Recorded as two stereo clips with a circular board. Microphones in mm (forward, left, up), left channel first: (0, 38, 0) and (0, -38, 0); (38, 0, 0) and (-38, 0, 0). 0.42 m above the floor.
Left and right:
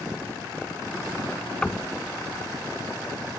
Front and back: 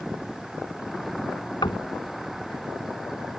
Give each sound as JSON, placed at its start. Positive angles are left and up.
{"t": 1.6, "sound": "knocking", "azimuth_deg": 10}